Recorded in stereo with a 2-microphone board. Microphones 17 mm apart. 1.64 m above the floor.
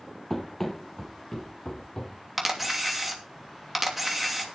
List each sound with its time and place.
0.3 s running footsteps: 15° left (ahead or behind), 2 m; by 2.1 s 40° left (ahead or behind), 2.5 m
2.4 s a camera shutter: 20° right (ahead or behind), 2.5 m